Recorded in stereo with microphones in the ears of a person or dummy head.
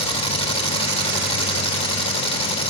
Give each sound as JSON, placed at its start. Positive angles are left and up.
{"t": 0.0, "sound": "an engine running", "side_deg": 30, "distance_m": 3.0}